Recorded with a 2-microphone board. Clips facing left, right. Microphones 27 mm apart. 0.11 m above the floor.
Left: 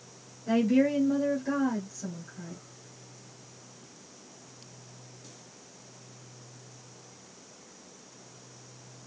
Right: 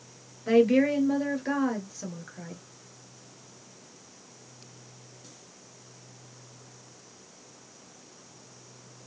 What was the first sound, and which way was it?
A woman speaking, 40° right (ahead or behind).